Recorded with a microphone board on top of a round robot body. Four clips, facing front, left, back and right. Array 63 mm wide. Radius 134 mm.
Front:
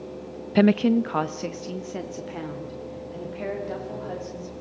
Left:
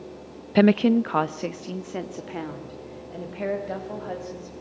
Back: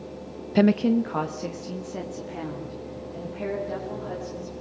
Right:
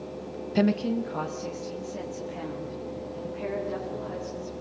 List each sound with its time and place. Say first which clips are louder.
0.6 s a woman speaking: left 7 dB, front 1 dB; 65° left, 0.5 m; by 4.5 s 70° left, 6.5 m